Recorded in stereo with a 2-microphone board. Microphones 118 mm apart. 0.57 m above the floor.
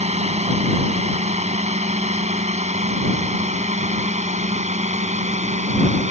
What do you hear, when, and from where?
0.0 s a drone: 70° right (ahead or behind); by 6.1 s 75° right (ahead or behind)